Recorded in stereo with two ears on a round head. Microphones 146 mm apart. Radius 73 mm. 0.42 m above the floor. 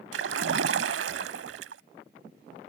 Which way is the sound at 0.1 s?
80° right.